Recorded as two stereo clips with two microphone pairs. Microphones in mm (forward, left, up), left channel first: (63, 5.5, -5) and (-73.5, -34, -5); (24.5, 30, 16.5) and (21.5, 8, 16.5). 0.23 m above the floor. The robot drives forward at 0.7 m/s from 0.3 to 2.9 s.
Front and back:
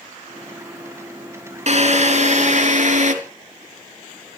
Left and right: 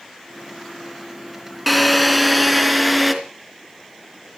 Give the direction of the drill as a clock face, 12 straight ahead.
6 o'clock.